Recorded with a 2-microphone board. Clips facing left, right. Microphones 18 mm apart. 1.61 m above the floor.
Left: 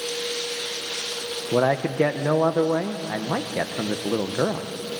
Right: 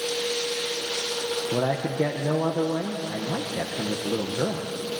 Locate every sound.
1.5 s a man speaking: 50° left (ahead or behind), 1.1 m